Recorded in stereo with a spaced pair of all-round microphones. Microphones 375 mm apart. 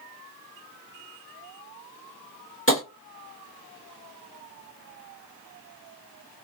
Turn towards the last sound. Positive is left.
turn(degrees=35)  # may be behind; listen again after turning